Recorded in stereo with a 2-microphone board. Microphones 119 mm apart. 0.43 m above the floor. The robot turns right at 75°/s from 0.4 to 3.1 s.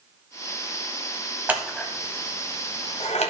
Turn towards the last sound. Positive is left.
turn(degrees=70)  # may be behind; listen again after turning